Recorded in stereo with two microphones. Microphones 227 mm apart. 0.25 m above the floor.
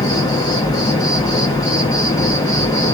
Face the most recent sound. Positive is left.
turn(degrees=15)  # may be behind; listen again after turning